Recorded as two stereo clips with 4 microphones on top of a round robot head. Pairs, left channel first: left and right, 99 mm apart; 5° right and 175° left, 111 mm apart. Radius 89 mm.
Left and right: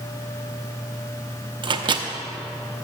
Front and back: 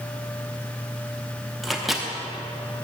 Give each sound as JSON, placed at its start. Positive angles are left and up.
{"t": 1.6, "sound": "a microwave", "azimuth_deg": -95, "distance_m": 0.7}